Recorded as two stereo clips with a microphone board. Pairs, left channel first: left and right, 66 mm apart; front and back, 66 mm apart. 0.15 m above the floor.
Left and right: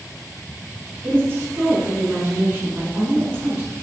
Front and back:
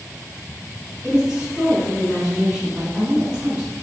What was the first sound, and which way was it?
A woman speaking, 105° right.